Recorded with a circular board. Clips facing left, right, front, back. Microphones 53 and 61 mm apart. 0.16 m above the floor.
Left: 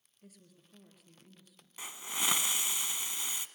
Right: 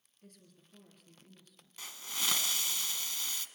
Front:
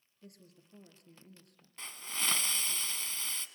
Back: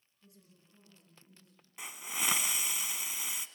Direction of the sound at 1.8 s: 125° left.